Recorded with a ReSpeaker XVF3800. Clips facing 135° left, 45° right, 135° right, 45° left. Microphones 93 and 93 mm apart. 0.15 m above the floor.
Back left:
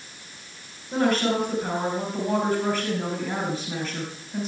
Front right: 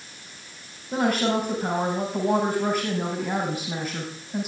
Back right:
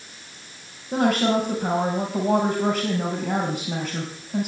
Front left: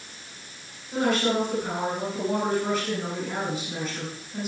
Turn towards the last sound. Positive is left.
turn(degrees=-120)